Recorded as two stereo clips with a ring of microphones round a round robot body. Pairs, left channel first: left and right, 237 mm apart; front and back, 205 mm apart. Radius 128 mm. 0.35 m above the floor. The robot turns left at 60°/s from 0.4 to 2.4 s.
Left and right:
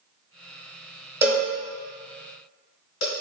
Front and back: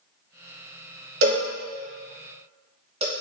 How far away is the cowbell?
About 1.1 m.